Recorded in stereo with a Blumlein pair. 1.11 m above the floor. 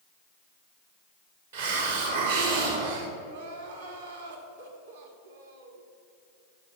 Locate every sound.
1.5 s a hiss: 65° right, 1.8 m
3.2 s crying: 65° right, 1.4 m